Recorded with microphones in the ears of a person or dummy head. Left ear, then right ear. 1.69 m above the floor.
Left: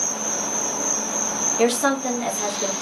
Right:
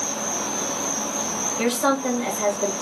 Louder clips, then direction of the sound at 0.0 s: Left 1 dB; 40° left (ahead or behind).